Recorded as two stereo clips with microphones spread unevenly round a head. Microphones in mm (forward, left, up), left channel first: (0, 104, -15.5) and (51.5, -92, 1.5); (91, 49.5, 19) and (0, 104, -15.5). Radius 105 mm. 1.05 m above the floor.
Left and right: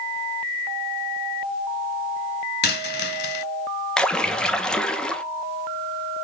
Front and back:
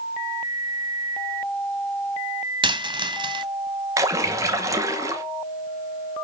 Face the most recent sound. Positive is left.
turn(degrees=-175)